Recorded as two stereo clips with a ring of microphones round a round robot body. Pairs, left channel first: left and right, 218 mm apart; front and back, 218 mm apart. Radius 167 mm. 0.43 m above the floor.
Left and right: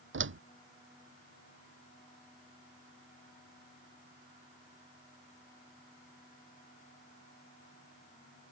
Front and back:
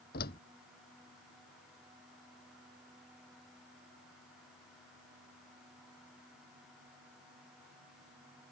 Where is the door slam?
60° right.